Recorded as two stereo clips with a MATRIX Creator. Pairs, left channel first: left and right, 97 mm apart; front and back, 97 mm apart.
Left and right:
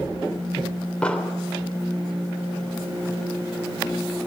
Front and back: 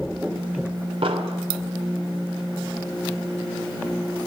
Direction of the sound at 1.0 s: 170° left.